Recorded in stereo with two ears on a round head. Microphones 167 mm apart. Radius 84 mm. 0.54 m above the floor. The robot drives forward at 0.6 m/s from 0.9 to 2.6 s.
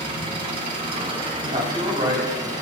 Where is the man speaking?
25° right (ahead or behind), 3.5 m; by 2.5 s 20° right (ahead or behind), 4 m.